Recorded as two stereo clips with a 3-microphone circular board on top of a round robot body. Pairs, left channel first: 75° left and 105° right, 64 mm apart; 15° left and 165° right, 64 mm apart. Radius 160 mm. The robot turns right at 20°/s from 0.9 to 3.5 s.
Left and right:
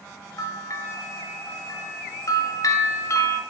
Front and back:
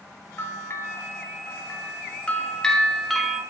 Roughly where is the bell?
Ahead left.